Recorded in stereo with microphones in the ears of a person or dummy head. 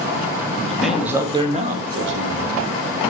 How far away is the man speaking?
About 2 m.